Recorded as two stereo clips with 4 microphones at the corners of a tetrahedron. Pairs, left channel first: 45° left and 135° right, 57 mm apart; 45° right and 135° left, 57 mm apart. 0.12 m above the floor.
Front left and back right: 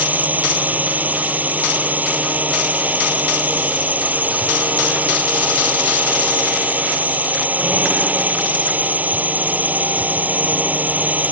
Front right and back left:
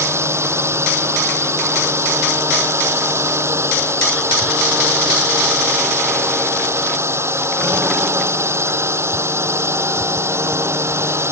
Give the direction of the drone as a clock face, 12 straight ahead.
6 o'clock.